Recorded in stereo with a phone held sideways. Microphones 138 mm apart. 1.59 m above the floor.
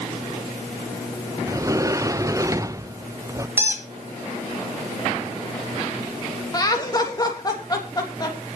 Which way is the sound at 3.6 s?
15° right (ahead or behind).